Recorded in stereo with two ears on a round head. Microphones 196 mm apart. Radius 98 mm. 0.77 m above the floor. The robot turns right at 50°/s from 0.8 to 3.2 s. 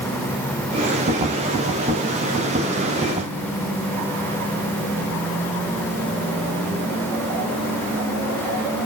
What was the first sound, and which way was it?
Only background noise.